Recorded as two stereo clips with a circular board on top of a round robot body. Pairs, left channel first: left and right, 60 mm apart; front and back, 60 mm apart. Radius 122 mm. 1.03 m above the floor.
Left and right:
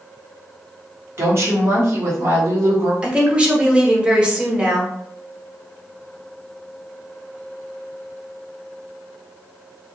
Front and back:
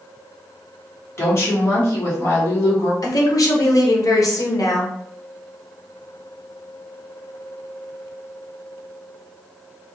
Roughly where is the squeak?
No squeak in this recording.